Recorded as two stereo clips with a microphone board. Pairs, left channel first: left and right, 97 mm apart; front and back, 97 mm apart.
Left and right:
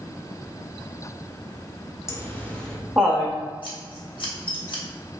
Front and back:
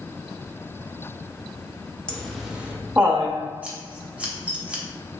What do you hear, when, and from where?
2.1 s laughter: 75° left, 0.7 m; by 3.4 s 150° right, 0.8 m
3.6 s scissors: 105° left, 0.9 m